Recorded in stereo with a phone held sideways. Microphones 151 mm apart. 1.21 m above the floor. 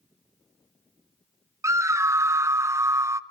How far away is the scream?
About 0.6 m.